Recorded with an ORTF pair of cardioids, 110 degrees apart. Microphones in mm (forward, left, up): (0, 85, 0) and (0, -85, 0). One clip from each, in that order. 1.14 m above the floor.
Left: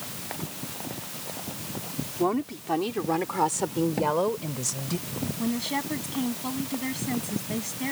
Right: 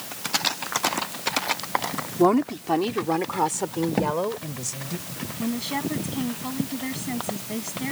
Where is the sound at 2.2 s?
40° right; by 5.0 s 15° left.